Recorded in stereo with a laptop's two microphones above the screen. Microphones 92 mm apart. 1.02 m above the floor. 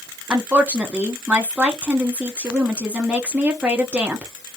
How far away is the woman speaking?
About 1.0 m.